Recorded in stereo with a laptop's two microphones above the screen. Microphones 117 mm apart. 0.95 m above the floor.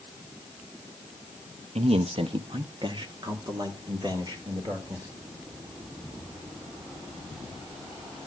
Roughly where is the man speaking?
Right.